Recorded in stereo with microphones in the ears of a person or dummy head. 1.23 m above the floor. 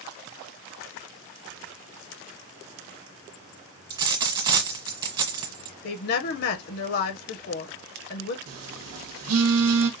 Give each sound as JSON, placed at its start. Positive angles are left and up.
{"t": 3.9, "sound": "a dropped coin", "side_deg": -25, "distance_m": 1.5}
{"t": 5.8, "sound": "a woman speaking", "side_deg": 50, "distance_m": 1.0}
{"t": 8.5, "sound": "a phone buzzing", "side_deg": -80, "distance_m": 1.1}